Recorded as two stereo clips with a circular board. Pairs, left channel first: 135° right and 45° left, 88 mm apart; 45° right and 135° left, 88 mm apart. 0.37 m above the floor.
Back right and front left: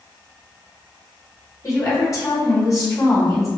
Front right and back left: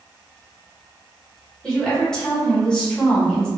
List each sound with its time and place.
1.6 s a woman speaking: 120° right, 1.2 m